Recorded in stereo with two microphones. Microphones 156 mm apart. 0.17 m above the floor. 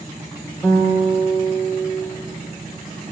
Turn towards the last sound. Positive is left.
turn(degrees=5)  # may be behind; listen again after turning